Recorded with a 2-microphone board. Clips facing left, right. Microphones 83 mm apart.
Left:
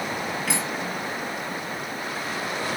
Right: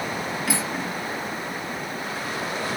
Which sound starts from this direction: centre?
Cutlery clinking, at 0.5 s.